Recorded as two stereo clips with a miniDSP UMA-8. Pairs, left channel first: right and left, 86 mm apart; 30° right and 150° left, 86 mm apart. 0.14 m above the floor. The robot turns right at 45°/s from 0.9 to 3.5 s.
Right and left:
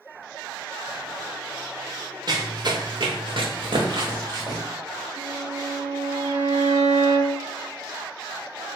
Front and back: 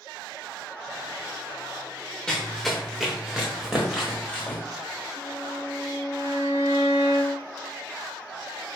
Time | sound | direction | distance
2.3 | running footsteps | 55° left | 1.0 m
5.2 | a violin | 25° left | 1.0 m